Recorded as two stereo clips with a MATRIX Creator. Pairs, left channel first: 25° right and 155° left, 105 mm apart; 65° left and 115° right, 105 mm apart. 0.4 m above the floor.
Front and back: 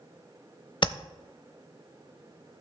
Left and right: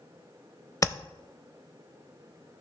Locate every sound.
0.8 s tapping: 10° left, 0.6 m